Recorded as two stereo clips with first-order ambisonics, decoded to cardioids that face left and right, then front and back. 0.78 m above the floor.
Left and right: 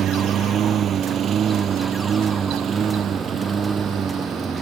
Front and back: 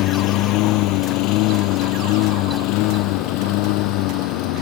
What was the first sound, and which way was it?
A lawn mower, 35° right.